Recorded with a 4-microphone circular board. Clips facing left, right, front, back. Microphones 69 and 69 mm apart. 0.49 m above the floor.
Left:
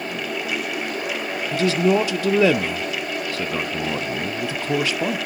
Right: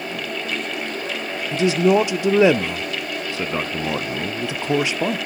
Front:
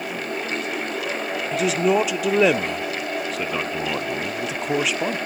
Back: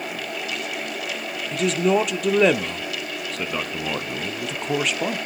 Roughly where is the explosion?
I don't hear an explosion.